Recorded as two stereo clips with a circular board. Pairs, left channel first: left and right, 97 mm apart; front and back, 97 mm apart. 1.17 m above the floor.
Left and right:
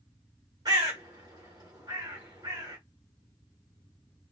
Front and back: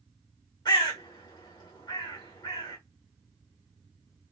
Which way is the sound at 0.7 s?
45° right.